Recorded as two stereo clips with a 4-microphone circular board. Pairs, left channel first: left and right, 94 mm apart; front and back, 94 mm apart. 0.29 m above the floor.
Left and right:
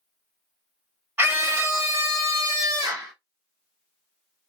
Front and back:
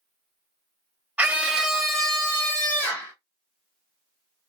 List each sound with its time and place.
1.2 s a scream: 130° right, 1.2 m; by 3.1 s 55° right, 1.6 m